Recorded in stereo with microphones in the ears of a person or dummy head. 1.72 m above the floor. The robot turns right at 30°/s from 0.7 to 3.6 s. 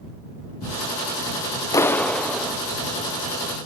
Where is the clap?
15° left (ahead or behind); by 2.5 s 10° right (ahead or behind).